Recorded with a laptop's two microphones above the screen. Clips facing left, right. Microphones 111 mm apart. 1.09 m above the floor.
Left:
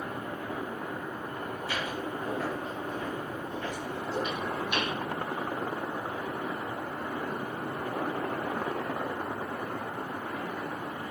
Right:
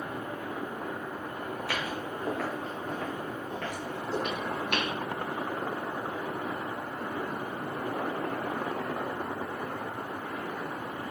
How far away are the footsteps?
About 3.5 m.